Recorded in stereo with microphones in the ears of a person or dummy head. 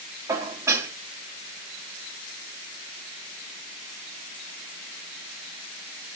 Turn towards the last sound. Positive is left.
turn(degrees=-25)  # may be behind; listen again after turning